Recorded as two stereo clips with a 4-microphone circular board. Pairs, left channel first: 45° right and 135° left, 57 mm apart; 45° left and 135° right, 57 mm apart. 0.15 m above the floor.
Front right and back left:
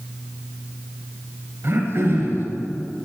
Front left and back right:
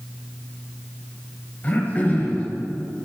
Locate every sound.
1.6 s throat clearing: 105° left, 2.5 m